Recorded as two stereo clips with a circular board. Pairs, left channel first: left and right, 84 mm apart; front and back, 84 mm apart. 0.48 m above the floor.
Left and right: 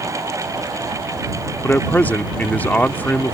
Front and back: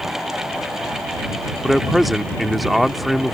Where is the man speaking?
90° left.